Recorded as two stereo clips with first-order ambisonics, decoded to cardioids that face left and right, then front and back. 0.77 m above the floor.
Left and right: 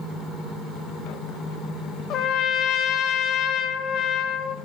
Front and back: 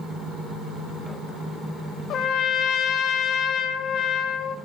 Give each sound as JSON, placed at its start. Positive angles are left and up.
{"t": 2.1, "sound": "a trumpet", "azimuth_deg": 50, "distance_m": 0.7}